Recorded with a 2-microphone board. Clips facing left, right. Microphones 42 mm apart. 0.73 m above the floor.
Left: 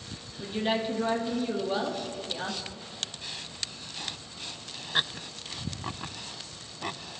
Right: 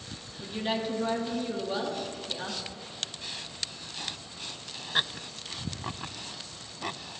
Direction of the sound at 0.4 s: 10° left (ahead or behind).